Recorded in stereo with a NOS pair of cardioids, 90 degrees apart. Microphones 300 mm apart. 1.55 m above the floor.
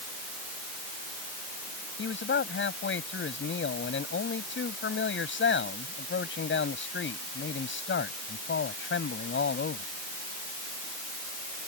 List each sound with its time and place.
2.0 s a man speaking: 40° left